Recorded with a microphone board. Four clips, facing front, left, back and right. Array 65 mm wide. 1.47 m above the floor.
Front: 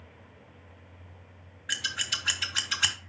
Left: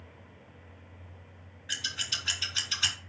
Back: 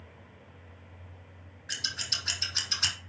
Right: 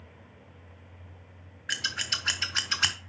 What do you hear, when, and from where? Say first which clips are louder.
1.7 s scissors: right 4 dB, front 5 dB; 70° right, 1.0 m